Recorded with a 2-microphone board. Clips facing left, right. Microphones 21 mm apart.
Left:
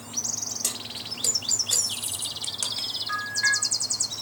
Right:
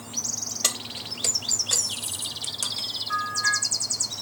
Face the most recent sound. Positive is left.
turn(degrees=55)  # may be behind; listen again after turning